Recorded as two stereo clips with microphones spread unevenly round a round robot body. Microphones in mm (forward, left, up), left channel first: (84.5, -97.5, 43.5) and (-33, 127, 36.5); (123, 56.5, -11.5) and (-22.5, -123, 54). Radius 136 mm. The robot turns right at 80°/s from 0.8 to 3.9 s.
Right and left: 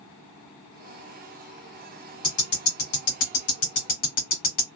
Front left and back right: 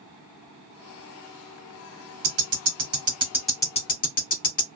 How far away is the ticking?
About 1.2 m.